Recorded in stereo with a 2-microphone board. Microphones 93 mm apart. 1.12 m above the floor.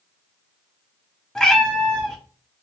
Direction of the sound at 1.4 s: 5° left (ahead or behind).